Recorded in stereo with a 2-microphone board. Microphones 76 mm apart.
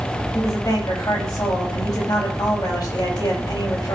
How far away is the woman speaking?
About 5 m.